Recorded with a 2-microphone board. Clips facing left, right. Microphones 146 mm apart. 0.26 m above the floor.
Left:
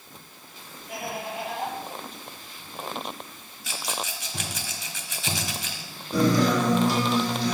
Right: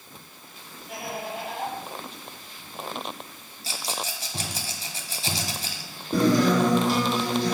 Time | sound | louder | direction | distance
0.9 | laughter | even | centre (ahead or behind) | 2.5 m
3.6 | a rattle | even | 35° right (ahead or behind) | 1.3 m
6.1 | a guitar | right 1 dB | 55° right (ahead or behind) | 3 m